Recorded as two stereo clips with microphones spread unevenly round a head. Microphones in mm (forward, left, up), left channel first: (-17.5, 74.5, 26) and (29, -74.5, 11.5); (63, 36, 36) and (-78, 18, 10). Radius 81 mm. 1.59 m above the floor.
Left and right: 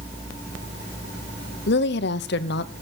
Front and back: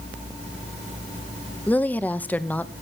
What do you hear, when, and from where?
1.7 s a woman speaking: 90° left, 0.9 m